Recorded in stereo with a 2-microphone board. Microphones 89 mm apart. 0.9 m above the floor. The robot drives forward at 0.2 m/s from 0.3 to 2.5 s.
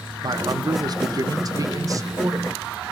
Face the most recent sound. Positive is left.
turn(degrees=-35)  # may be behind; listen again after turning